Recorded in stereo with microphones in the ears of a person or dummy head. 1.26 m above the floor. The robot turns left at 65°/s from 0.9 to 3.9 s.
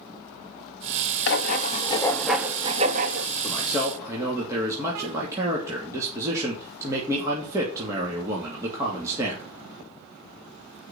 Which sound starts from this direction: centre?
A man speaking, at 3.4 s.